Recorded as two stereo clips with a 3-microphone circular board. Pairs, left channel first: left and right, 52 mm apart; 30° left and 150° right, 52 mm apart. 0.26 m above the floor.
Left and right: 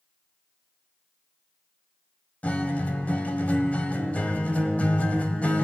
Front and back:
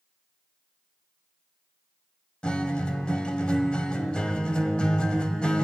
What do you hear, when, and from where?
2.4 s a guitar: 75° left, 1.3 m